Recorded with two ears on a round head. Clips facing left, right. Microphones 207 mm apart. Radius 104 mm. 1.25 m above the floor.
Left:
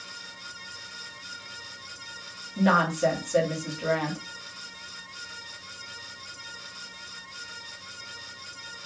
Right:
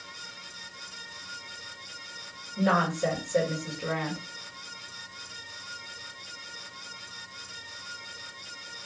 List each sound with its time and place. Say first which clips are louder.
2.6 s a woman speaking: left 2 dB; 60° left (ahead or behind), 2 m